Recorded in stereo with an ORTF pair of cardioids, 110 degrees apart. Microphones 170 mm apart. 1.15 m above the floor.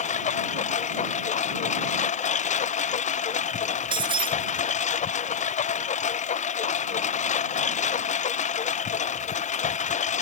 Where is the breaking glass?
30° right.